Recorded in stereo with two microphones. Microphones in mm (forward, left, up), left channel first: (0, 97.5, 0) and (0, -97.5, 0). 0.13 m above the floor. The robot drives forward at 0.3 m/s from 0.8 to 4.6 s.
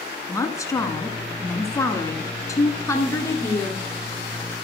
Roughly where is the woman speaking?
Centre.